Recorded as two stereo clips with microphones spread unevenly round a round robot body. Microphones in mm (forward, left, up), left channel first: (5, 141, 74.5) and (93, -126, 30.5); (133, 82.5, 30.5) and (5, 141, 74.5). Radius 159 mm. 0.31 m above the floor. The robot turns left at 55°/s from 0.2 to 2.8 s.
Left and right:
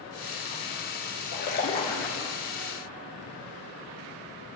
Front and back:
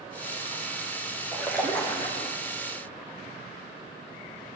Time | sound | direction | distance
1.3 | a splash | 65° left | 6 m